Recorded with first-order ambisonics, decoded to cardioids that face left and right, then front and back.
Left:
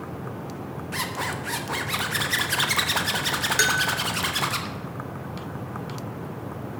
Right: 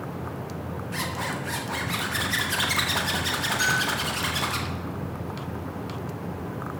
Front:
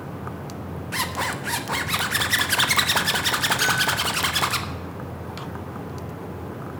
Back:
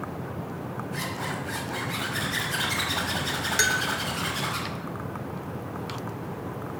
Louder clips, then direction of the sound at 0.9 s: Left 2 dB, front 8 dB; 15° left.